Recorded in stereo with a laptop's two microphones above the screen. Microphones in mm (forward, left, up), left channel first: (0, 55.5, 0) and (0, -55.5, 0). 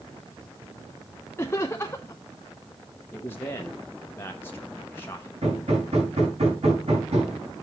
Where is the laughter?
25° left (ahead or behind), 0.6 m.